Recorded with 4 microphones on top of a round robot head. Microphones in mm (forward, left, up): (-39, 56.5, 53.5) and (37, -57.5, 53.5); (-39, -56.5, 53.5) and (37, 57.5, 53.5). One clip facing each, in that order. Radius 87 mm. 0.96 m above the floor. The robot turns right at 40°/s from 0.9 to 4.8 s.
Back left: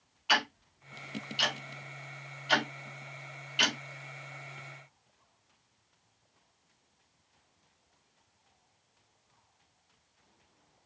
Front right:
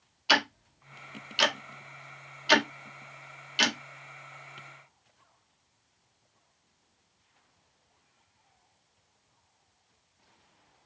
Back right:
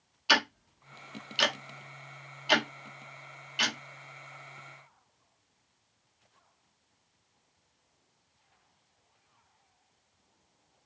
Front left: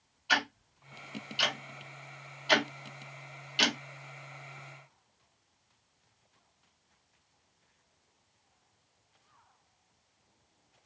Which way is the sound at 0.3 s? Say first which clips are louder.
Front right 3 dB, back right 4 dB; 110° right.